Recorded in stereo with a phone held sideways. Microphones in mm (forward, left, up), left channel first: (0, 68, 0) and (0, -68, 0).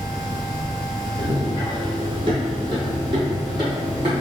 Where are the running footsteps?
30° right (ahead or behind), 0.9 m; by 4.2 s 35° right (ahead or behind), 2.5 m.